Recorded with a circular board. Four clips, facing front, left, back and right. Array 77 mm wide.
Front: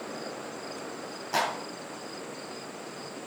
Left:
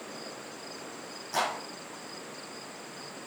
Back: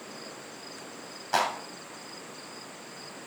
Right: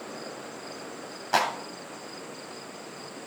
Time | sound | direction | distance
1.3 | a clap | 115° right | 3.5 m